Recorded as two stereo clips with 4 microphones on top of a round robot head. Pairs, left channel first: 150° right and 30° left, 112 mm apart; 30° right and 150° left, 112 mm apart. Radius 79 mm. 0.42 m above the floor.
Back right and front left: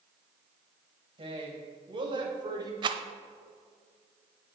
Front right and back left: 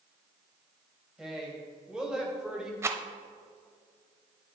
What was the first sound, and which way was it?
A woman speaking, 65° left.